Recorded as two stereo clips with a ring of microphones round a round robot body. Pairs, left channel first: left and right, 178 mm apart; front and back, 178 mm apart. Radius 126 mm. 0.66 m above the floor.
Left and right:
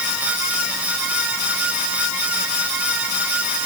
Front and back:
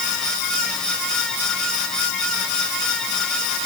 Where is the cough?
I don't hear a cough.